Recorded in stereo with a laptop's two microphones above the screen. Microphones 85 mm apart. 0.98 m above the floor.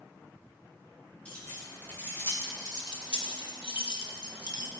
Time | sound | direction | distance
1.2 | keys jangling | 15° left (ahead or behind) | 2.0 m